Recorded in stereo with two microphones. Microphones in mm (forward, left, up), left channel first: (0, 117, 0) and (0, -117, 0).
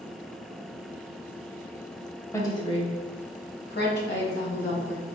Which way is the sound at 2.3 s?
15° left (ahead or behind).